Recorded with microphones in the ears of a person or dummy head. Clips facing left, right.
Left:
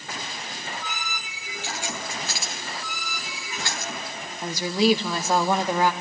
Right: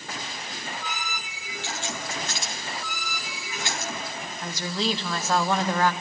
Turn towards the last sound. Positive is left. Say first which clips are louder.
# left 7 dB
turn(degrees=15)  # may be behind; listen again after turning